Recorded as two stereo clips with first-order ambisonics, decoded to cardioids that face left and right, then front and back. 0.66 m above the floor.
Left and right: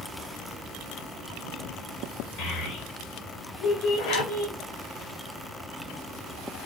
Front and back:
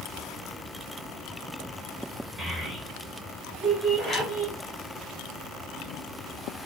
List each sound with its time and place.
2.4 s a child speaking: 115° left, 4 m; by 4.5 s 110° left, 3 m
4.0 s a zipper: 75° left, 3 m